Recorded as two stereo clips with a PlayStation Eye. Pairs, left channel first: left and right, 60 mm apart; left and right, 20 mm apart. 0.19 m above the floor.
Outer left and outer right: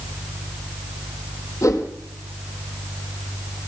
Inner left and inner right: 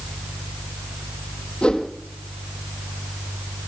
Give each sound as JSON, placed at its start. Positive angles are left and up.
{"t": 1.6, "sound": "a whoosh", "side_deg": 60, "distance_m": 1.3}